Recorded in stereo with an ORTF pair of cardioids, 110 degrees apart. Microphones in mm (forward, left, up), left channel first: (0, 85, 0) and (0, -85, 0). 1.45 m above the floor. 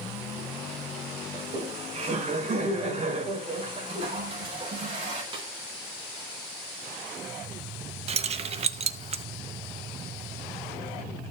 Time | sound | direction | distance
1.3 | laughter | 40° right | 6.5 m
3.9 | a toilet flushing | 35° right | 6 m
5.3 | a snare drum | 30° right | 4.5 m
8.1 | keys jangling | 40° right | 1.0 m